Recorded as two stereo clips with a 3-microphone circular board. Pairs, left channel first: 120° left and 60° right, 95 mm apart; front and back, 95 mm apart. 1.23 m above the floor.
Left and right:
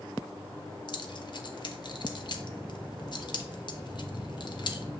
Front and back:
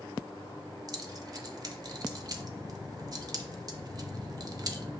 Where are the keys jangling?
140° left, 0.5 m.